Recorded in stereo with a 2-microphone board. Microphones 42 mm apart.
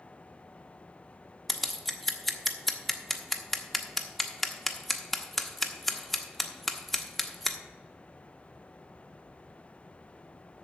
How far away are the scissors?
About 0.8 m.